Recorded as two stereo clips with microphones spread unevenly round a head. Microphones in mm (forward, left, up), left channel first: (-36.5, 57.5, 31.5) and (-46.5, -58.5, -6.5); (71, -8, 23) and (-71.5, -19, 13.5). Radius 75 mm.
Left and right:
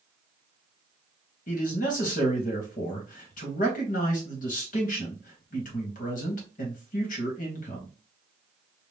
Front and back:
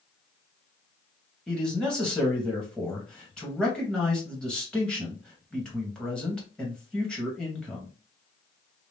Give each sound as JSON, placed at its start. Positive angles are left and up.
{"t": 1.5, "sound": "a man speaking", "azimuth_deg": 90, "distance_m": 1.2}